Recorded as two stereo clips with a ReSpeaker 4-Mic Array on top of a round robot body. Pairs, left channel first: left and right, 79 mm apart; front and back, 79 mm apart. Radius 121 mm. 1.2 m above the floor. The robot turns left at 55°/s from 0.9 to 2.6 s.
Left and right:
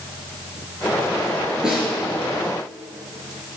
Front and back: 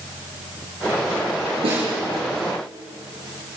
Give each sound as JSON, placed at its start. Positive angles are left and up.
{"t": 1.6, "sound": "a snare drum", "azimuth_deg": -170, "distance_m": 4.5}